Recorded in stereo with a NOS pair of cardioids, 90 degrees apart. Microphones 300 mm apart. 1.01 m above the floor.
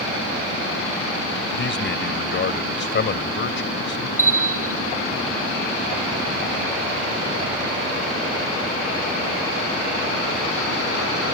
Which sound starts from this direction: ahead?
A bell, at 4.2 s.